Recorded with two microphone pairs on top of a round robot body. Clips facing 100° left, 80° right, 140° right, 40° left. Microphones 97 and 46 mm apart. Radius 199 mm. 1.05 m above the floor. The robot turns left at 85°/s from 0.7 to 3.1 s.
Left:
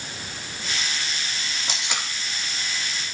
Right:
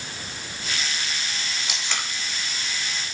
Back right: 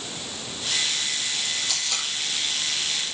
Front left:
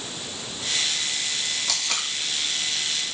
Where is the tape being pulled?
45° left, 3.5 m; by 2.1 s 10° left, 3.5 m.